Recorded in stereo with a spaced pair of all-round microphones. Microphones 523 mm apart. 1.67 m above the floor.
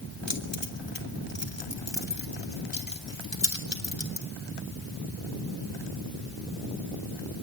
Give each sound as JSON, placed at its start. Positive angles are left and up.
{"t": 0.3, "sound": "keys jangling", "side_deg": 55, "distance_m": 3.5}